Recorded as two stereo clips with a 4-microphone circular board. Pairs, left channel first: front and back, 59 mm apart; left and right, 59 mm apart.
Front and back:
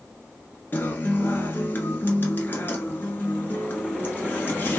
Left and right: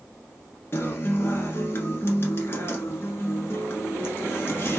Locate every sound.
0.7 s a guitar: 50° left, 0.8 m